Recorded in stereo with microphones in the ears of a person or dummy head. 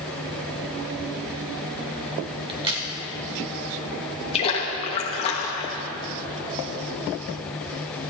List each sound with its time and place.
2.5 s a crack: 30° right (ahead or behind), 1.7 m
4.3 s a splash: 35° left (ahead or behind), 1.3 m